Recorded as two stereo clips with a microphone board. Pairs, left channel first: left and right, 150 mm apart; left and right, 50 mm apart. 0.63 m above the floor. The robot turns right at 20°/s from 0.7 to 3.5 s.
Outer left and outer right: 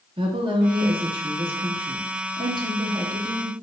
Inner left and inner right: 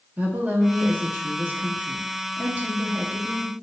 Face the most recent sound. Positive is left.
turn(degrees=-45)